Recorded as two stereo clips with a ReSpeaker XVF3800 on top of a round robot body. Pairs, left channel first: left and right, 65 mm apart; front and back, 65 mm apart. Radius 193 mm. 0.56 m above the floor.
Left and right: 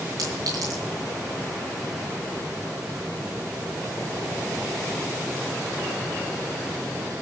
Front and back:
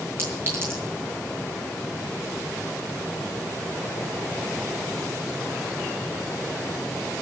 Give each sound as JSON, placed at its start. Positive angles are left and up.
{"t": 0.2, "sound": "a clink", "azimuth_deg": -125, "distance_m": 7.5}